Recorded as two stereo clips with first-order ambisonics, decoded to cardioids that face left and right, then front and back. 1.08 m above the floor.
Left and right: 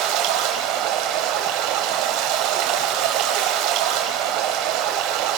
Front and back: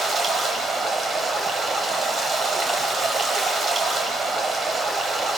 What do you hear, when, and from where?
0.0 s running water: 110° right, 2.5 m